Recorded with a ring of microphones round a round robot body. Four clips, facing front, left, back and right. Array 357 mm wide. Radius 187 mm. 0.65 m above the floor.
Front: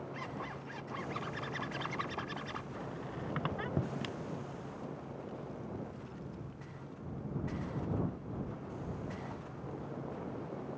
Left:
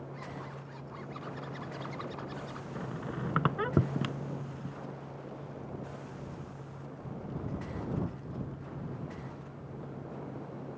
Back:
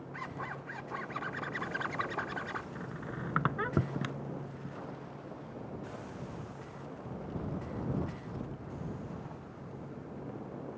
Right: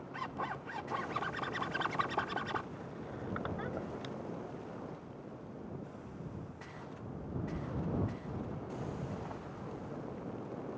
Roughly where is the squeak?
Left.